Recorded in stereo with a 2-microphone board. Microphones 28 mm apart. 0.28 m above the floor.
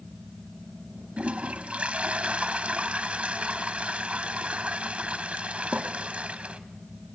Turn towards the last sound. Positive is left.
turn(degrees=-50)  # may be behind; listen again after turning